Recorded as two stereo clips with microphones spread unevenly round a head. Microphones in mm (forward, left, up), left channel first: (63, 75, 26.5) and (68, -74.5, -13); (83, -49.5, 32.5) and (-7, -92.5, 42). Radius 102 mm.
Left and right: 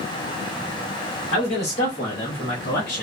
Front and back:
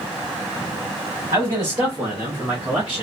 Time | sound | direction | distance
1.3 | a man speaking | 140° left | 1.4 m